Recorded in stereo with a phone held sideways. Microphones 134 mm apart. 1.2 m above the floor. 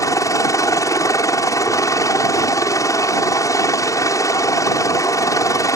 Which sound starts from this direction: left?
A helicopter, at 0.0 s.